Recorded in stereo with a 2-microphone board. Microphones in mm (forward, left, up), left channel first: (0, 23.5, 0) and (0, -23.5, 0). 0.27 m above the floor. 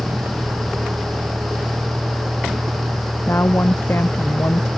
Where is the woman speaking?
55° left (ahead or behind).